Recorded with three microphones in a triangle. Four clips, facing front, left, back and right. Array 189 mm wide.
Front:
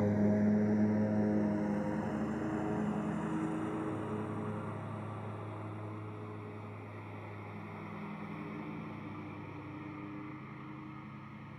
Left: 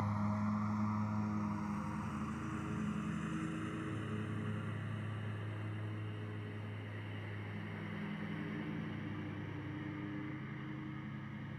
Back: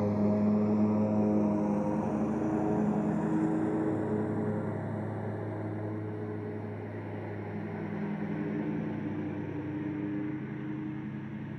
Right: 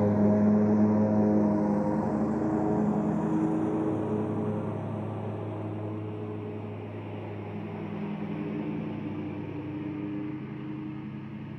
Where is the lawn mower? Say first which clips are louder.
Right 15 dB, back 2 dB; 100° right; by 11.6 s 140° right.